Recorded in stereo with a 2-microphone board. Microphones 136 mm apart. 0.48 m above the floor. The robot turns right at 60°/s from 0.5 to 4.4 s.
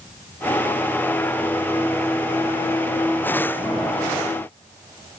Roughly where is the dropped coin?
No dropped coin in this recording.